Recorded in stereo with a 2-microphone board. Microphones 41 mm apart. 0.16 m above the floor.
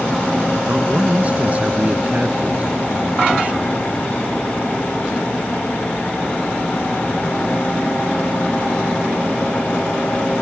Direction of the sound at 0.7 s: 40° right (ahead or behind).